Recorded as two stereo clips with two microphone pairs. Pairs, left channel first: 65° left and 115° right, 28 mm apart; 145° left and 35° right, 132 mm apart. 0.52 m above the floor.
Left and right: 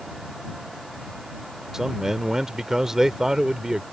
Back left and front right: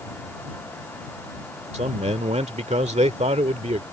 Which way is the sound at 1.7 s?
45° right.